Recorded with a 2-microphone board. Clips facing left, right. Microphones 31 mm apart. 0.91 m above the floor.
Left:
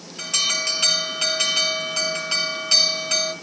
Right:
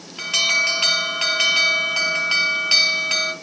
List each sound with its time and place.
0.2 s an alarm: 35° right (ahead or behind), 3 m